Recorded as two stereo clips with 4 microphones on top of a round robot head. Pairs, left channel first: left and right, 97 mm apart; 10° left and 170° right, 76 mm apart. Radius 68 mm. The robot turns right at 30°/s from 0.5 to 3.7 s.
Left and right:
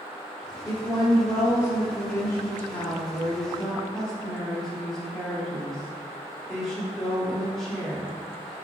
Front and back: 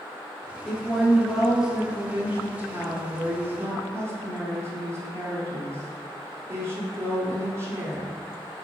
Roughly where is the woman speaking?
Left.